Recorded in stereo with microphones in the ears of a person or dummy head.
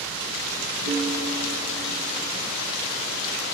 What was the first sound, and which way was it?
A piano, 70° right (ahead or behind).